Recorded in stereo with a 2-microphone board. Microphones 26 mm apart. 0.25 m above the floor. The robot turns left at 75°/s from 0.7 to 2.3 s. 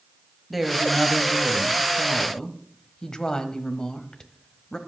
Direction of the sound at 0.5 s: 5° right (ahead or behind).